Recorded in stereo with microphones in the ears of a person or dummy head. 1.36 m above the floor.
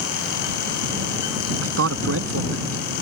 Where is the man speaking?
80° right.